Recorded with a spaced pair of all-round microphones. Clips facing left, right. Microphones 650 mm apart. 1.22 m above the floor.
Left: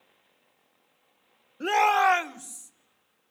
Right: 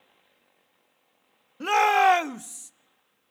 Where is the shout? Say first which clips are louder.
Right 2 dB; 30° right (ahead or behind), 0.6 m; by 2.7 s 85° right, 0.9 m.